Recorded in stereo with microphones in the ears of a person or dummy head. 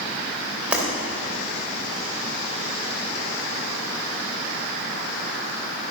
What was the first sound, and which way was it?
Breaking glass, 10° right (ahead or behind).